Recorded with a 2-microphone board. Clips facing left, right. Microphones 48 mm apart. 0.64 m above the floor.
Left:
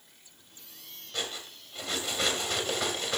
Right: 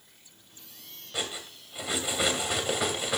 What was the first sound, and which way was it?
Cutlery clinking, 10° right (ahead or behind).